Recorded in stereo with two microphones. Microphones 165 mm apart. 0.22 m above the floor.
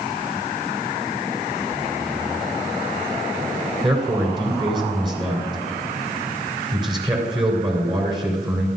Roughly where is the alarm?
I don't hear an alarm.